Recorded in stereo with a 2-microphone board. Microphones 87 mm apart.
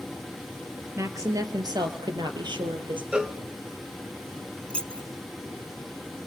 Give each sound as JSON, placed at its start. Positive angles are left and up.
{"t": 1.0, "sound": "a woman speaking", "side_deg": -35, "distance_m": 3.0}
{"t": 3.1, "sound": "a cowbell", "side_deg": -10, "distance_m": 0.9}
{"t": 4.7, "sound": "keys jangling", "side_deg": 15, "distance_m": 0.8}